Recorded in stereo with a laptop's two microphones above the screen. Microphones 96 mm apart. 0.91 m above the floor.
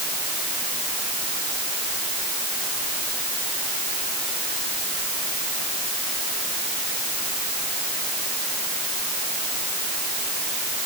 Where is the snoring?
No snoring in this recording.